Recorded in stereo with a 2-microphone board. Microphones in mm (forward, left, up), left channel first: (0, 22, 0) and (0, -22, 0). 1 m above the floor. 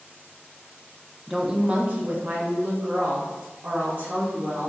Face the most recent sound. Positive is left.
turn(degrees=-55)  # may be behind; listen again after turning